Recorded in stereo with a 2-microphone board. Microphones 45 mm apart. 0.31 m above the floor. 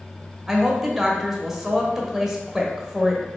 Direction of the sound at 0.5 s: 10° right (ahead or behind).